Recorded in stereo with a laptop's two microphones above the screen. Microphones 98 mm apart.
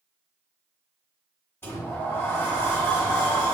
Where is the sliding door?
25° left (ahead or behind), 1.1 m.